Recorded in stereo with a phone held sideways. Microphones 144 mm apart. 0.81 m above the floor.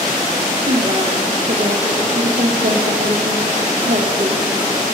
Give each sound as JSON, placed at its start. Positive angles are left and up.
{"t": 0.6, "sound": "a woman speaking", "side_deg": -70, "distance_m": 1.4}